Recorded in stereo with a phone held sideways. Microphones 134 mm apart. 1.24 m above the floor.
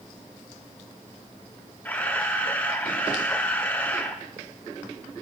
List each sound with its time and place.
1.9 s a camera shutter: 15° left (ahead or behind), 1.0 m